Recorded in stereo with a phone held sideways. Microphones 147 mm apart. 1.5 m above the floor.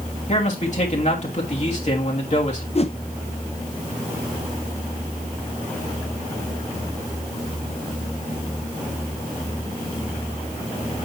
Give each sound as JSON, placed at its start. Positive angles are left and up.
{"t": 0.3, "sound": "a man speaking", "side_deg": 50, "distance_m": 3.0}
{"t": 2.8, "sound": "a whoosh", "side_deg": 45, "distance_m": 0.6}